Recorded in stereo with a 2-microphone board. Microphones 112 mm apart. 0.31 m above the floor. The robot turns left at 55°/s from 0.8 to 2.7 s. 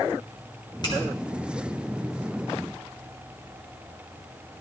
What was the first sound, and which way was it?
A finger snap, 40° left (ahead or behind).